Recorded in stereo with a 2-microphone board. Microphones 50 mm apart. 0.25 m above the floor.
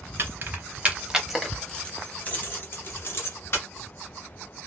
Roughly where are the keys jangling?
Right.